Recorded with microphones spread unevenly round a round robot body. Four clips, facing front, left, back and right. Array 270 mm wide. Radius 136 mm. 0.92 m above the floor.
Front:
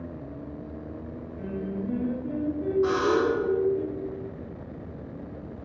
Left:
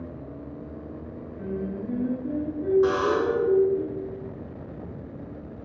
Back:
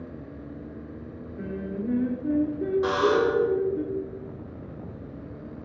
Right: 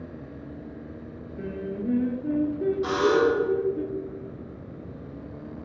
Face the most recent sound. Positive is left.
turn(degrees=155)